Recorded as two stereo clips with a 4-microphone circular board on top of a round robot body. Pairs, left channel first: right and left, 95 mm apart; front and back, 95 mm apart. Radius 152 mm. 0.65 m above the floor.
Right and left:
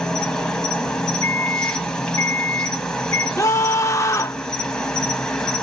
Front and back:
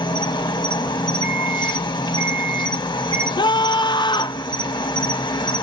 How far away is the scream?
About 0.9 m.